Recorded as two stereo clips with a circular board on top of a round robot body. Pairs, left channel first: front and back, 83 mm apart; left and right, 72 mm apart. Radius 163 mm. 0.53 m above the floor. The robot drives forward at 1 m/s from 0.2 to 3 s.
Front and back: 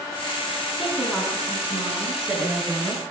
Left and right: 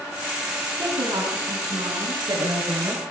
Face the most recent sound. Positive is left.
turn(degrees=-110)